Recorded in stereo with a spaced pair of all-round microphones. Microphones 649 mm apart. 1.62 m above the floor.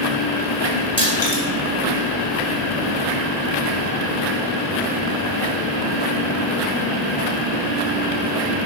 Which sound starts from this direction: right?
Crushing, at 1.0 s.